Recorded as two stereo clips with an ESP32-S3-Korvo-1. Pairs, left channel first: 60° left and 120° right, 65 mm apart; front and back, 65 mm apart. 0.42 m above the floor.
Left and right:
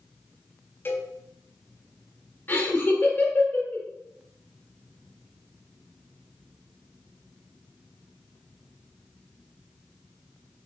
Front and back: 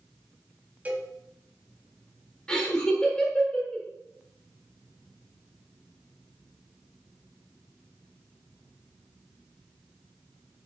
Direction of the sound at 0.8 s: 115° left.